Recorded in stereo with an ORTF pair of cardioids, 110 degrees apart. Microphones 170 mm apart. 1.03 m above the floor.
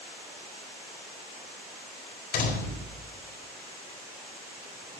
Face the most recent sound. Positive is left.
turn(degrees=55)